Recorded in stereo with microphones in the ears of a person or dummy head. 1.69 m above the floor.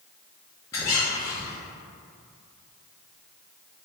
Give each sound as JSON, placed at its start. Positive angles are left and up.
{"t": 0.7, "sound": "a squeak", "side_deg": 20, "distance_m": 0.9}